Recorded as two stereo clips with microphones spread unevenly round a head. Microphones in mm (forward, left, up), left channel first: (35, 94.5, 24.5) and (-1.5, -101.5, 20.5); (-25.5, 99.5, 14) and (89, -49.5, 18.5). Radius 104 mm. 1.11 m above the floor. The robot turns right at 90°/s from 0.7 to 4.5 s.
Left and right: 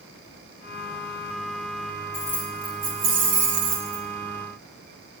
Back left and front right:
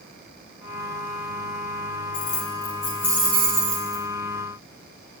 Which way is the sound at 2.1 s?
145° left.